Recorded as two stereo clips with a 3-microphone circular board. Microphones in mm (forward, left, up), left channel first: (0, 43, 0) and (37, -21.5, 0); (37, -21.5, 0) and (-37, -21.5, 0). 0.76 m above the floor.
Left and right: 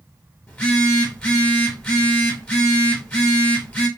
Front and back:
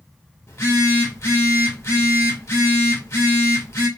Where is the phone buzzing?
45° left, 1.1 m.